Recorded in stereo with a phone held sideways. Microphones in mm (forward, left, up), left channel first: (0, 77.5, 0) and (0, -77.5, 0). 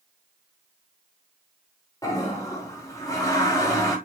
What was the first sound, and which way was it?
A toilet flushing, 20° left (ahead or behind).